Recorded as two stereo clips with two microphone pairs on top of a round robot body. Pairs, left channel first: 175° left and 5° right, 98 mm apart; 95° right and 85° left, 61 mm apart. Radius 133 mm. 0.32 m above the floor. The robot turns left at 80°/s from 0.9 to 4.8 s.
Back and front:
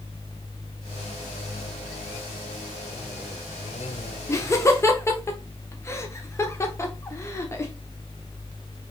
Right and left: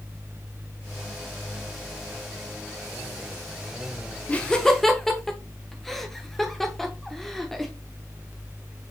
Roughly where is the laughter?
Behind.